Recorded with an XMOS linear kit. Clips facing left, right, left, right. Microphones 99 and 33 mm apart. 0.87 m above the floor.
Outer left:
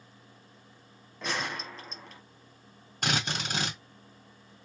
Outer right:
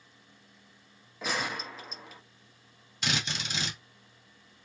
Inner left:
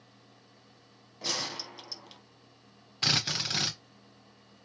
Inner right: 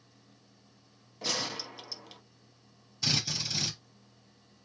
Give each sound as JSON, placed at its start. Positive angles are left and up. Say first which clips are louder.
{"t": 1.2, "sound": "a gunshot", "louder": "outer right 1 dB, inner right 1 dB", "side_deg": -5, "distance_m": 1.0}
{"t": 3.0, "sound": "a drill", "louder": "outer left 3 dB, inner left 3 dB", "side_deg": 50, "distance_m": 1.7}